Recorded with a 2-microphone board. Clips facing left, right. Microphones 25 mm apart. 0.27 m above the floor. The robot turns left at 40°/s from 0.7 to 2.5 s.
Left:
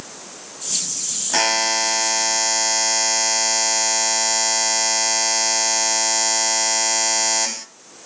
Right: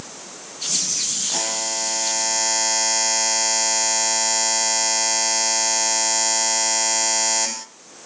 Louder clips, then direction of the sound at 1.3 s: Left 12 dB; 55° left.